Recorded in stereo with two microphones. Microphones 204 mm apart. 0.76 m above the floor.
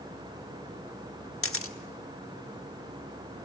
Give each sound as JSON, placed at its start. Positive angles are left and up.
{"t": 1.4, "sound": "a camera shutter", "side_deg": 80, "distance_m": 1.3}